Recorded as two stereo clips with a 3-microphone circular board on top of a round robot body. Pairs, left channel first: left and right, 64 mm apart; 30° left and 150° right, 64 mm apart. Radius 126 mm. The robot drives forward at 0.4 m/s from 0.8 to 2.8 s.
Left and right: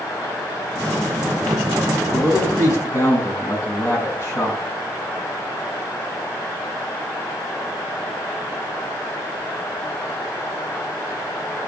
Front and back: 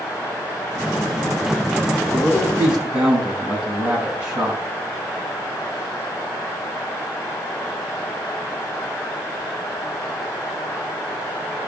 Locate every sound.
2.1 s a man speaking: 135° left, 5.5 m